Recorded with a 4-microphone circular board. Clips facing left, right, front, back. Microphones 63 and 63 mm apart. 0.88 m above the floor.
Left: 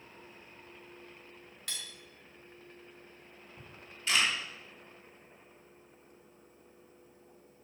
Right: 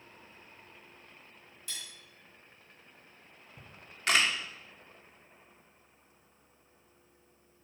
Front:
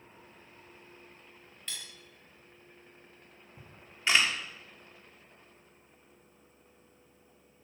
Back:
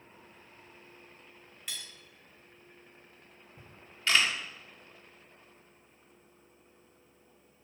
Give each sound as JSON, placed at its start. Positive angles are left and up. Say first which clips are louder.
{"t": 1.7, "sound": "cutlery clinking", "louder": "left 2 dB, even", "azimuth_deg": 95, "distance_m": 2.5}
{"t": 3.6, "sound": "a camera shutter", "louder": "even, even", "azimuth_deg": -70, "distance_m": 1.5}